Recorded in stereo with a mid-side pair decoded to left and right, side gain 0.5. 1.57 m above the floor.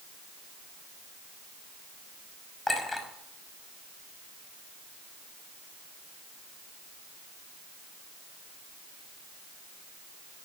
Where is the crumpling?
I don't hear crumpling.